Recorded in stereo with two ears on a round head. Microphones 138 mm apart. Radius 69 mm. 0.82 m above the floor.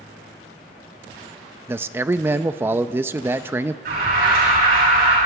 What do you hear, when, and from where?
1.7 s a man speaking: 15° right (ahead or behind), 0.6 m
3.9 s an alarm: 60° right (ahead or behind), 8.5 m